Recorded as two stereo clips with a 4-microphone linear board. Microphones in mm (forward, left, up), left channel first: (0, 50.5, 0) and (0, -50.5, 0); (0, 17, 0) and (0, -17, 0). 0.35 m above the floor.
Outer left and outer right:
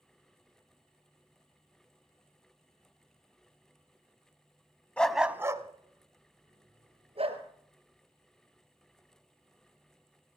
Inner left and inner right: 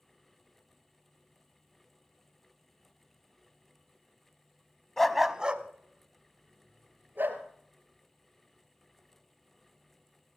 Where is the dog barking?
10° left (ahead or behind), 0.7 m; by 7.4 s 70° right (ahead or behind), 2.5 m.